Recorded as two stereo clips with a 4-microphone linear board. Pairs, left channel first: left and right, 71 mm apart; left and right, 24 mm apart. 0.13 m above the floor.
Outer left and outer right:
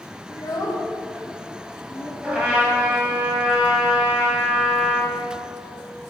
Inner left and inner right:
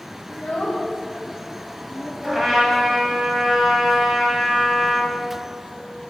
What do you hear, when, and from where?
0.3 s a child speaking: 65° left (ahead or behind), 2.5 m; by 2.1 s 30° left (ahead or behind), 1.7 m
2.2 s a trumpet: 10° right (ahead or behind), 2.5 m